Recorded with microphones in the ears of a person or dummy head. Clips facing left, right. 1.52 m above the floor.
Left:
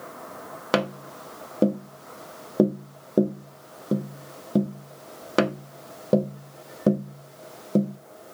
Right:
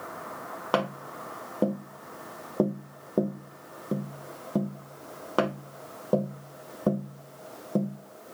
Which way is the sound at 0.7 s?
25° left (ahead or behind).